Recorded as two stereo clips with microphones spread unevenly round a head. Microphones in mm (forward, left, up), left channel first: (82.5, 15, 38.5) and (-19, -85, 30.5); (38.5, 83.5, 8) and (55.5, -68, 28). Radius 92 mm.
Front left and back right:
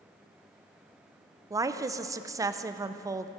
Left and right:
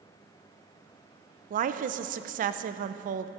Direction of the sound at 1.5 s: 80° right.